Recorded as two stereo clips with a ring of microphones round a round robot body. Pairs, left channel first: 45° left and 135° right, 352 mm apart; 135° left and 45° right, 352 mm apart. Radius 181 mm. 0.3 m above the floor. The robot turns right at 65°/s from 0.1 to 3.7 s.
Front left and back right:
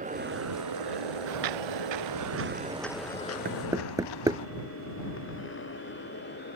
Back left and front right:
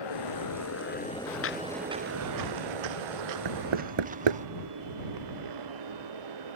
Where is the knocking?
70° right; by 4.4 s 55° right.